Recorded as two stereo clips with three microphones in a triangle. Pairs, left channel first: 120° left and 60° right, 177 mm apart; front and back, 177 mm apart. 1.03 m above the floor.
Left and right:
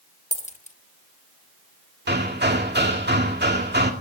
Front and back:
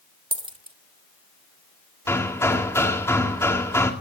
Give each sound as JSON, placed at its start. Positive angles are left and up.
{"t": 0.3, "sound": "a dropped coin", "azimuth_deg": 135, "distance_m": 0.8}
{"t": 2.1, "sound": "hammering", "azimuth_deg": -75, "distance_m": 2.0}